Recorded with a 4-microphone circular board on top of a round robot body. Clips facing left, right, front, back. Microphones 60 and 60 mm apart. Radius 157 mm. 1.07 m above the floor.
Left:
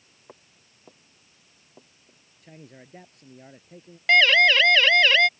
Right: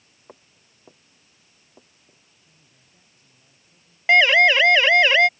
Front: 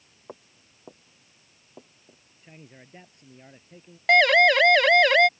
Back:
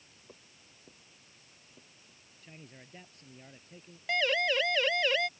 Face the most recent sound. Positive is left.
turn(degrees=-20)